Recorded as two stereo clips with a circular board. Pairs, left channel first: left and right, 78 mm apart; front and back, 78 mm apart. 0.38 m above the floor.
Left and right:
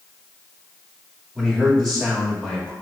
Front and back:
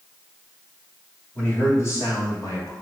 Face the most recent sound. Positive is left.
turn(degrees=10)